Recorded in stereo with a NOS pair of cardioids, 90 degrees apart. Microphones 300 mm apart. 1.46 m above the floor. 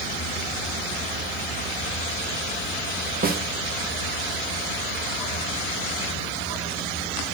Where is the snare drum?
30° right, 1.4 m.